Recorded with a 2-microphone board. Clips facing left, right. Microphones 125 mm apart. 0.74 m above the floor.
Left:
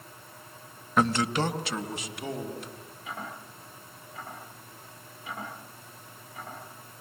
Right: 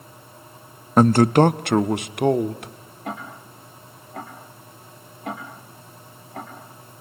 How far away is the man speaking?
About 0.6 m.